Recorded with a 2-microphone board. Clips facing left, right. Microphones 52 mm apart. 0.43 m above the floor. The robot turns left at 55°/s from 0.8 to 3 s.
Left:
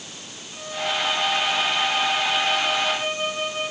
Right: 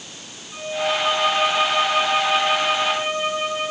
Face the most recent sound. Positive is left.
turn(degrees=-160)